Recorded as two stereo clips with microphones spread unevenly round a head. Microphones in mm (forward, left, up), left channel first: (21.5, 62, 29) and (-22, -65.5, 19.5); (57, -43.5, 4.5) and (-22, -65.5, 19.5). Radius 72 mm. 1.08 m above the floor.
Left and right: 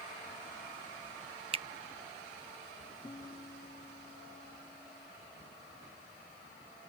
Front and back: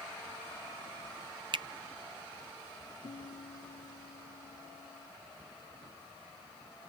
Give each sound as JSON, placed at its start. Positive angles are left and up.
{"t": 1.5, "sound": "a finger snap", "azimuth_deg": -145}
{"t": 3.0, "sound": "a guitar", "azimuth_deg": 5}